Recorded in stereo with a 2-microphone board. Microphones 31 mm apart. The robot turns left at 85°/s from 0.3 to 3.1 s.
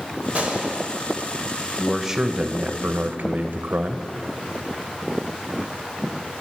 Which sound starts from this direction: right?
A gunshot, at 0.3 s.